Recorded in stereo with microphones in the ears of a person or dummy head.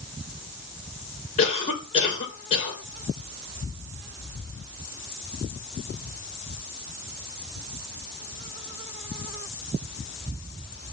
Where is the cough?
40° left (ahead or behind), 5 m.